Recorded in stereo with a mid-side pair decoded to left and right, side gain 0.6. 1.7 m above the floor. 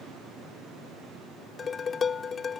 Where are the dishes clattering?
35° left.